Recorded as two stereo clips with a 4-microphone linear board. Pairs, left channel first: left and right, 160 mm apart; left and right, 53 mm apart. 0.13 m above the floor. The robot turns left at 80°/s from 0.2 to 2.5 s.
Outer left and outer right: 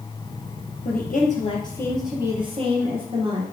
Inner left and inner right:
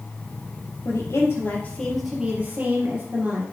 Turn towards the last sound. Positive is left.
turn(degrees=-40)